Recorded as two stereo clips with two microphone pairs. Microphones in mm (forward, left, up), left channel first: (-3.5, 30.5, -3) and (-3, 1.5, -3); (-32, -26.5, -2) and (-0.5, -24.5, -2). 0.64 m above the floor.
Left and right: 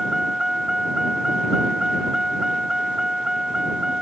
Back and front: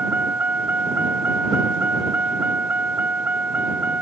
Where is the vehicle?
15° right; by 4.0 s 25° right.